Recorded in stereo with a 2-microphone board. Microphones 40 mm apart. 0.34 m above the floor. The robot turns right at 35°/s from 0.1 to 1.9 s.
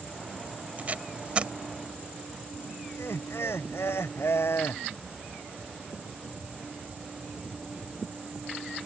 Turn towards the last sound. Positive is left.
turn(degrees=80)